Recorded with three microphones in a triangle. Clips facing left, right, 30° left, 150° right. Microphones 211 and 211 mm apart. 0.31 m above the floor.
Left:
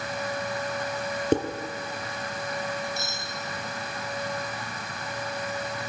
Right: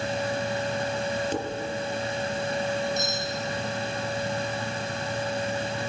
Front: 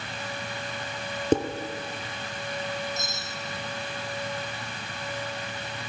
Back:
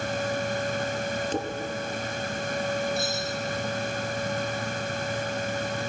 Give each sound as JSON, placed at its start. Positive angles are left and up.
{"t": 1.3, "sound": "dishes clattering", "azimuth_deg": 60, "distance_m": 4.0}
{"t": 3.0, "sound": "cutlery clinking", "azimuth_deg": -20, "distance_m": 9.0}